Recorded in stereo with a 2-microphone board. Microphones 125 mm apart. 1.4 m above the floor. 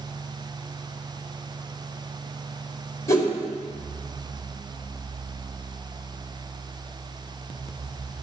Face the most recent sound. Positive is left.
turn(degrees=25)  # may be behind; listen again after turning